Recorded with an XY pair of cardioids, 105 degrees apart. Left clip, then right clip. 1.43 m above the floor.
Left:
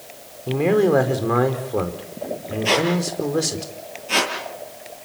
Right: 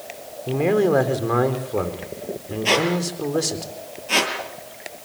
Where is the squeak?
10° right, 8 m.